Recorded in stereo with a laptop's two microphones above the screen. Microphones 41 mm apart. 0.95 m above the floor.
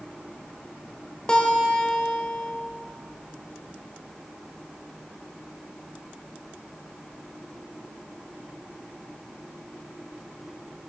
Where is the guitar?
20° left (ahead or behind), 1.4 m.